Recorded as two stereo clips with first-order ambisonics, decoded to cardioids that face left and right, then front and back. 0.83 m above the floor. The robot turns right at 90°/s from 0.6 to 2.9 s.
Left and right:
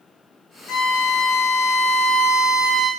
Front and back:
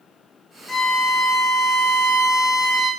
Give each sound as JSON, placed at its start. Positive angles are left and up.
{"t": 0.7, "sound": "a violin", "azimuth_deg": 70, "distance_m": 1.8}